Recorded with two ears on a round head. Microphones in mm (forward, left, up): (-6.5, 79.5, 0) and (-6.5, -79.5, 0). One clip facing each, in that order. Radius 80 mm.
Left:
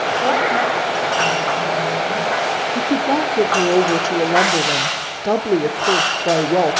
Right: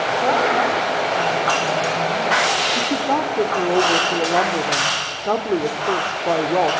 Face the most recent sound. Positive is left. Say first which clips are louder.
# left 5 dB
turn(degrees=20)  # may be behind; listen again after turning